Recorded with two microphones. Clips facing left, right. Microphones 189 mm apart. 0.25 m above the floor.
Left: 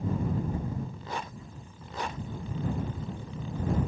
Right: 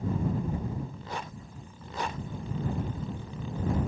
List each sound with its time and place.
Only background noise.